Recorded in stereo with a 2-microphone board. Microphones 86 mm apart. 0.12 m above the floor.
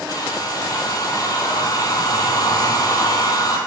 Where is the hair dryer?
50° left (ahead or behind), 1.4 m.